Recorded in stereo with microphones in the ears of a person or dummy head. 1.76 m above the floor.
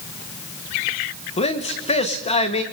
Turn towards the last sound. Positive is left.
turn(degrees=30)  # may be behind; listen again after turning